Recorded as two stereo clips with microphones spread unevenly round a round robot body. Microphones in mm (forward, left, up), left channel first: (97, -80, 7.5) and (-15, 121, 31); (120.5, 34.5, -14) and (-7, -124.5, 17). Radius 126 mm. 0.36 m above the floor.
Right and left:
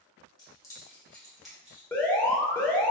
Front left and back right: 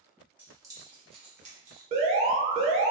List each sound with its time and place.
0.4 s keys jangling: 40° right, 0.9 m; by 1.8 s 150° right, 1.0 m
1.9 s an alarm: 115° right, 0.6 m